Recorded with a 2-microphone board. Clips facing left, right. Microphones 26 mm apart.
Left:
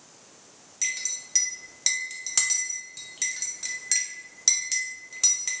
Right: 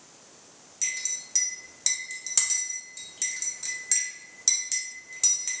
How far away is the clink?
About 0.6 m.